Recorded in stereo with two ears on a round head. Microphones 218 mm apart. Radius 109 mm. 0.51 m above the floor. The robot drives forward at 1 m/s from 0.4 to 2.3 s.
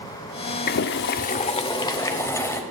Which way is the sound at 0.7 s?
40° left (ahead or behind).